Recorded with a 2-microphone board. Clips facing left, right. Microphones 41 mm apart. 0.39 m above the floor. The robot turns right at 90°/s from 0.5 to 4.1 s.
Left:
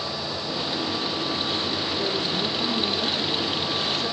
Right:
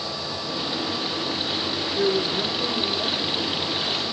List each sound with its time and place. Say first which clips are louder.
1.9 s a woman speaking: right 7 dB; 80° right, 3 m; by 4.1 s 115° left, 3 m